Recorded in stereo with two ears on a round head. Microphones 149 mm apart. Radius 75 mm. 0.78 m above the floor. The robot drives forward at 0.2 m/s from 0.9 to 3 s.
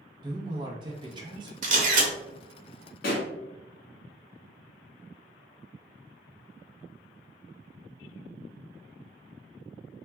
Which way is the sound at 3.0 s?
60° left (ahead or behind).